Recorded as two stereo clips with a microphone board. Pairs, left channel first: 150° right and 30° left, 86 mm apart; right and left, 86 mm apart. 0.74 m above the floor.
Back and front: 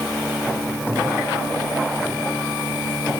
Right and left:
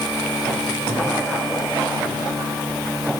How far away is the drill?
No drill in this recording.